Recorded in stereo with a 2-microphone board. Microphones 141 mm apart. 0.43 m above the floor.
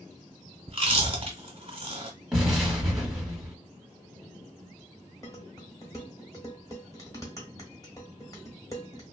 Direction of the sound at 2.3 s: 5° right (ahead or behind).